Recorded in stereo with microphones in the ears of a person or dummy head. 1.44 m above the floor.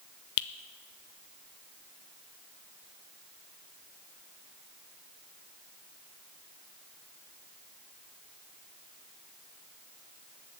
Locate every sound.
0.4 s a finger snap: 70° left (ahead or behind), 0.6 m